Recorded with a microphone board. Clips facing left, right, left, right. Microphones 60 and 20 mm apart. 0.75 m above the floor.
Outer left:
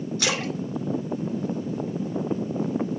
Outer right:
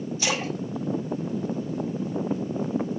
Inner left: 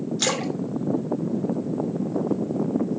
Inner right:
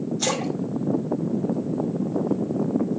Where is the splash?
65° left (ahead or behind), 2.5 m.